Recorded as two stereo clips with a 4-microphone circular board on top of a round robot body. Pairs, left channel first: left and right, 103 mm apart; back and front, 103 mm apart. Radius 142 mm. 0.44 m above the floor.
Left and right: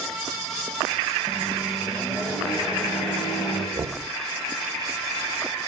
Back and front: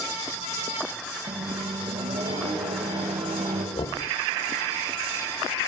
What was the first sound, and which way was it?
A microwave, 10° right.